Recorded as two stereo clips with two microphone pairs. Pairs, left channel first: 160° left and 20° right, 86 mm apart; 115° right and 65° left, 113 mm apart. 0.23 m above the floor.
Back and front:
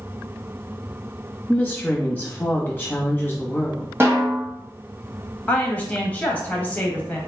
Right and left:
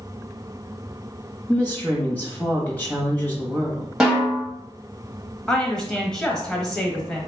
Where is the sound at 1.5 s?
165° right, 1.1 m.